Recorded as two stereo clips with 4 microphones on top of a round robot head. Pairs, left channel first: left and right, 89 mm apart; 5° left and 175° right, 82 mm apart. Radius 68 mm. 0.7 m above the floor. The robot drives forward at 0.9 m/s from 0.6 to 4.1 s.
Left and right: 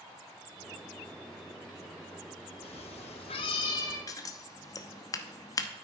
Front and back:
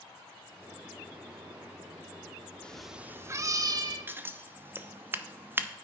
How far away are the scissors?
About 0.9 m.